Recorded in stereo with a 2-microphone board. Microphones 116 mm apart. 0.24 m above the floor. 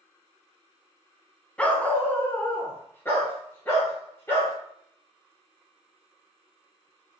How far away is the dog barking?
About 0.7 m.